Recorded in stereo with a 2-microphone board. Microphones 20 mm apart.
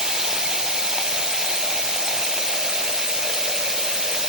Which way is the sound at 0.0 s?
35° right (ahead or behind).